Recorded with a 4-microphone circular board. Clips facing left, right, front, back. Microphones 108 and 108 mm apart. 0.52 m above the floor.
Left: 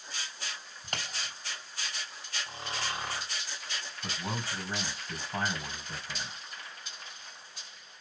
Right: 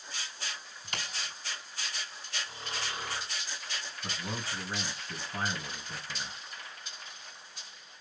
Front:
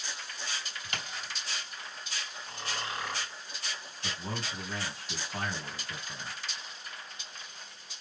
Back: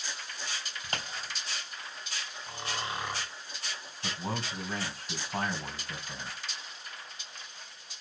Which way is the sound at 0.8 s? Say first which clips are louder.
Left 1 dB, back 4 dB; 130° left.